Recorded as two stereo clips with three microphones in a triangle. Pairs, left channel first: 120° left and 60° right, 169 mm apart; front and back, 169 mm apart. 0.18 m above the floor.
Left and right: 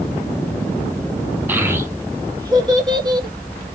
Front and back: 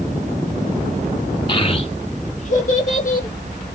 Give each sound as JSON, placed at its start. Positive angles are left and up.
{"t": 1.5, "sound": "a child speaking", "azimuth_deg": 5, "distance_m": 0.9}